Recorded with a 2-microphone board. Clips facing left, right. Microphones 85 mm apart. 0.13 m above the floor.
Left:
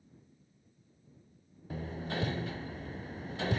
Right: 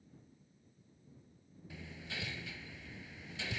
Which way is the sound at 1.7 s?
45° left (ahead or behind).